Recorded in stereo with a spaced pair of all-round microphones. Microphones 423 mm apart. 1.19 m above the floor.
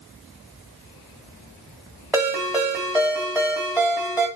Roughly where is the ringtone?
Centre.